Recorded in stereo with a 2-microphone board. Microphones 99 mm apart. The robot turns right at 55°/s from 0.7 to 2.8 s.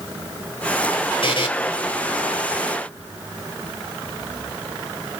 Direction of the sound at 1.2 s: 65° left (ahead or behind).